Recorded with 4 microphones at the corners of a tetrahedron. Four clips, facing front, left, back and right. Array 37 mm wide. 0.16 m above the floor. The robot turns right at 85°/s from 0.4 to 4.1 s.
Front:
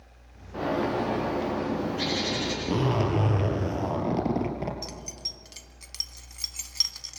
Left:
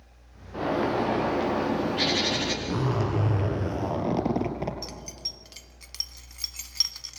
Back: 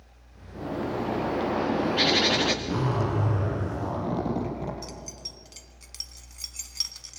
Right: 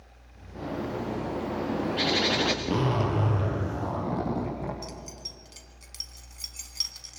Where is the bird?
60° left, 4 m; by 2.5 s 130° right, 4 m.